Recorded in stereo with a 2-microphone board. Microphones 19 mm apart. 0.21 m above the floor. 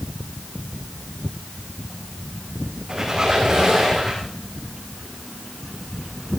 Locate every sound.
2.9 s a squeak: 35° right (ahead or behind), 5.5 m